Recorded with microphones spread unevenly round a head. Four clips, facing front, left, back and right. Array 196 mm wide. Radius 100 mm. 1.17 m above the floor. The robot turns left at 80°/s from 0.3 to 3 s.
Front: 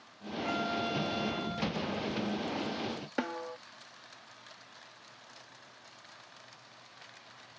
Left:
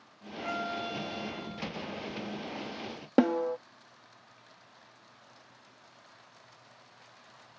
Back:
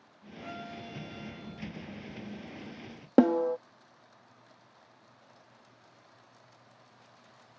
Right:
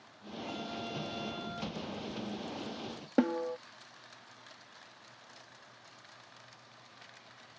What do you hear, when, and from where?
0.4 s a violin: 70° left; by 1.7 s 40° right
3.2 s a snare drum: 160° left